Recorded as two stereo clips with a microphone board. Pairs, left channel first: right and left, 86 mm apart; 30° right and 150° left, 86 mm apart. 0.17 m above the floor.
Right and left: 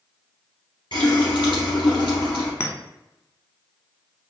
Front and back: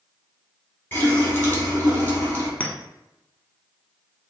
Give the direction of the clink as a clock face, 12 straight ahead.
3 o'clock.